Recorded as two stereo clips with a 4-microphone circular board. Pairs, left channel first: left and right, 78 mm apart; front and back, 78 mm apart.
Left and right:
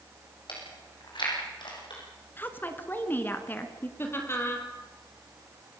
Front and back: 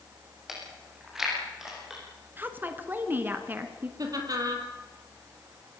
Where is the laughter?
145° left, 4 m.